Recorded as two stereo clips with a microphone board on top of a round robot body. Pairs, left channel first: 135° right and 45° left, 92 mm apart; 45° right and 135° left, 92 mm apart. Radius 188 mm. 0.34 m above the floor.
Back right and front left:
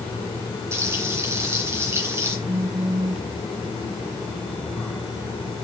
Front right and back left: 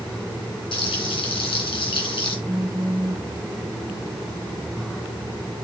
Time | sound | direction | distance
0.7 | frying | 20° right | 2.5 m
2.5 | a phone buzzing | 35° left | 4.5 m